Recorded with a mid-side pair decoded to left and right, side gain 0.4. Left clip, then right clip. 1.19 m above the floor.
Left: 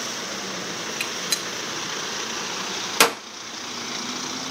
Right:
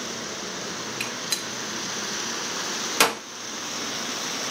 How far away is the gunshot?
About 1.6 m.